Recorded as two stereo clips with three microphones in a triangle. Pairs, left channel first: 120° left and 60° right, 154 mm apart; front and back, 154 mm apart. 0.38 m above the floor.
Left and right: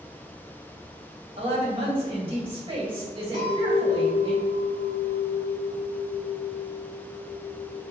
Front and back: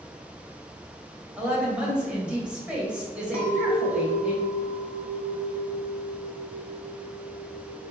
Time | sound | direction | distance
1.4 | a woman speaking | 100° right | 1.7 m
3.3 | a clink | 75° right | 1.1 m